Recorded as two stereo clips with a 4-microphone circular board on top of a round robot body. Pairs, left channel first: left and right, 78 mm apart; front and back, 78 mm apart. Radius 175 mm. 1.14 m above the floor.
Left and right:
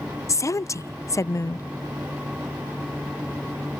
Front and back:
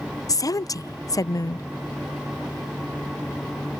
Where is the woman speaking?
40° left.